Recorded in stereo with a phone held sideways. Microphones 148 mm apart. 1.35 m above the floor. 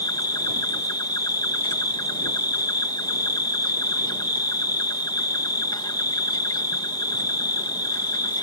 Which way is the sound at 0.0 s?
25° left (ahead or behind).